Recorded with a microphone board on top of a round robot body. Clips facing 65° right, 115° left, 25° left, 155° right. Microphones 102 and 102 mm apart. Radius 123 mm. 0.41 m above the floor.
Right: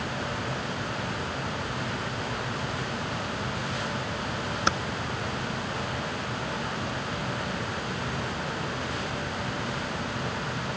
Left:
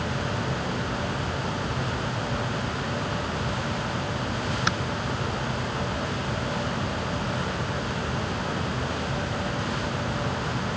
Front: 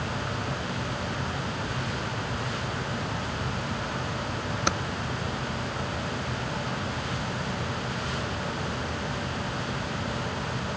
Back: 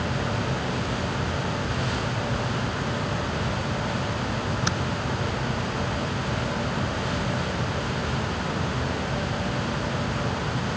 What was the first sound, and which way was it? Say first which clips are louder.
Typing on a keyboard: right 3 dB, even; 10° right.